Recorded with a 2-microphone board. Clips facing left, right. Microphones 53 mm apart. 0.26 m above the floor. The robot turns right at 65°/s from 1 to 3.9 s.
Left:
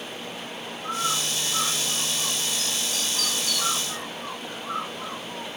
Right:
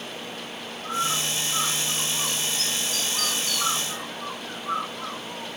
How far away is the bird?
About 7.5 m.